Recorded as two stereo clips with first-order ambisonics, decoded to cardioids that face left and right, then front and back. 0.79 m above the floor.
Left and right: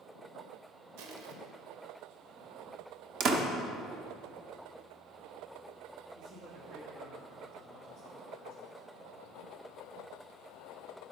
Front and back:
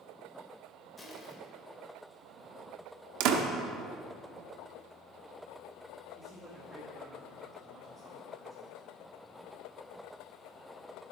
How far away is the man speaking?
About 1.5 m.